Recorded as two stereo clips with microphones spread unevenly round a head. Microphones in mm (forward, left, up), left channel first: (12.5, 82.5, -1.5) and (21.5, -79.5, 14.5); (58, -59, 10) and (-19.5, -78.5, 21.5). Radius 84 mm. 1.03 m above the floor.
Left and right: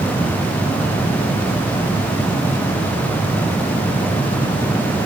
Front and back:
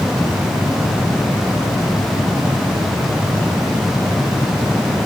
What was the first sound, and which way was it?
Only background noise.